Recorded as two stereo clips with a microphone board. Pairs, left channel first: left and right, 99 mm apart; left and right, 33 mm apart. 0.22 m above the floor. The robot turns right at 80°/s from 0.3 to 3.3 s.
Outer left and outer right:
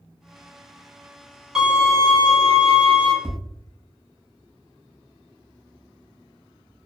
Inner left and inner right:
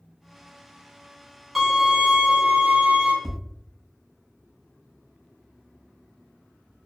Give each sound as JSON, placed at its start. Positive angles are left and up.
{"t": 1.6, "sound": "a violin", "azimuth_deg": -175, "distance_m": 1.0}
{"t": 3.2, "sound": "tapping", "side_deg": -15, "distance_m": 1.3}